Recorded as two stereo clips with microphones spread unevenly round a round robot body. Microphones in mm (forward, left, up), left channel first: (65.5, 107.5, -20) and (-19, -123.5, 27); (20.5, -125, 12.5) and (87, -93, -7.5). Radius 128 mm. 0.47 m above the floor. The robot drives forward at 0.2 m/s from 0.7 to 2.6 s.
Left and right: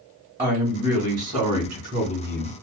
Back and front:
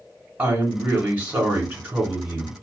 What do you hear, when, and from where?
0.4 s a woman speaking: 40° right, 1.6 m; by 2.5 s 50° right, 1.4 m